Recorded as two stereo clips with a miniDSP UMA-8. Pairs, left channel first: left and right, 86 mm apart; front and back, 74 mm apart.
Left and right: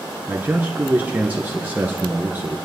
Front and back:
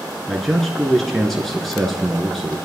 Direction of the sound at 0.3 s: 80° right.